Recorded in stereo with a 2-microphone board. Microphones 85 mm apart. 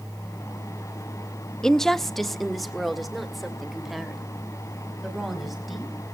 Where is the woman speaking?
5° left (ahead or behind), 0.5 m; by 5.9 s centre (ahead or behind), 5 m.